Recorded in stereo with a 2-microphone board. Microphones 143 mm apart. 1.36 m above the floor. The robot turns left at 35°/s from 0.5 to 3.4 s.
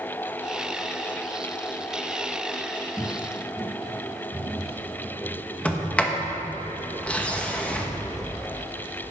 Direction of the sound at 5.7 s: 10° left (ahead or behind).